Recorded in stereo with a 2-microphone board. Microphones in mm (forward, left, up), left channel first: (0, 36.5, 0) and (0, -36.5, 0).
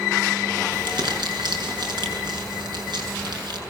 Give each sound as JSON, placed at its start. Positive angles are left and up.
{"t": 0.7, "sound": "crumpling", "side_deg": -75, "distance_m": 7.0}